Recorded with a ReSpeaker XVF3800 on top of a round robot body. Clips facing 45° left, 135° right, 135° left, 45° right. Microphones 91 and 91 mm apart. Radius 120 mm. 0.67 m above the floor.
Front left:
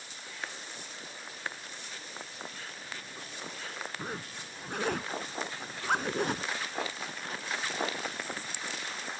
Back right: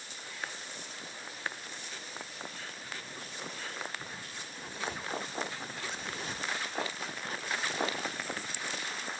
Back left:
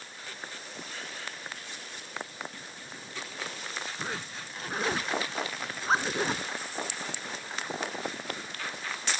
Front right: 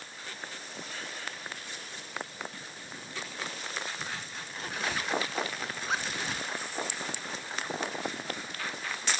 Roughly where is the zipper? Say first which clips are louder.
Front left 5 dB, back left 3 dB; left.